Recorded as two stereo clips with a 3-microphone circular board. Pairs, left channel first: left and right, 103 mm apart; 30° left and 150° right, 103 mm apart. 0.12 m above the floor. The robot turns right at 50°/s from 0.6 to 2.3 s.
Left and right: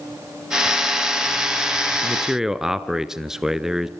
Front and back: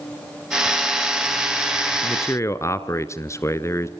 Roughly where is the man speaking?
Ahead right.